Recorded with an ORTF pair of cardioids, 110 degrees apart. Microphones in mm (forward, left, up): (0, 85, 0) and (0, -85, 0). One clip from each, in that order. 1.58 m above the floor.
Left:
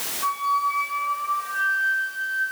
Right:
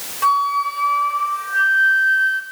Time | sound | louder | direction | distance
0.2 | a flute | right 6 dB | 60° right | 6 m